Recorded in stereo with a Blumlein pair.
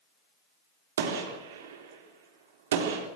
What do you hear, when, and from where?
1.0 s a gunshot: 60° right, 4 m